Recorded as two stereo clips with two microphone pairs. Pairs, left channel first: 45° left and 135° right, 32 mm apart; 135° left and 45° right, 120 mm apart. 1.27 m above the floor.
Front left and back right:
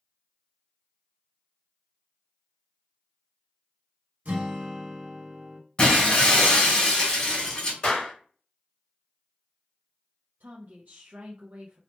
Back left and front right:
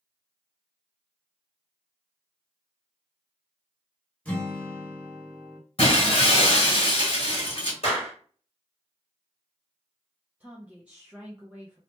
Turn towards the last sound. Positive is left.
turn(degrees=-120)